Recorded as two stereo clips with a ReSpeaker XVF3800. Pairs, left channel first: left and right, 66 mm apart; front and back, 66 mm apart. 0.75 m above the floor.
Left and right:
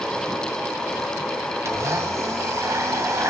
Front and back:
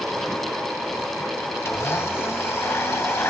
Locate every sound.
1.6 s a blender: 50° right, 1.1 m